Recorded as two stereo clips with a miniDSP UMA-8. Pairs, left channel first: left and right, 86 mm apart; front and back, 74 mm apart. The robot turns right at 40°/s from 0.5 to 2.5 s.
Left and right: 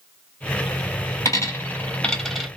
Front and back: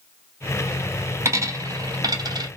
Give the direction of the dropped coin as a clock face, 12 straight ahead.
7 o'clock.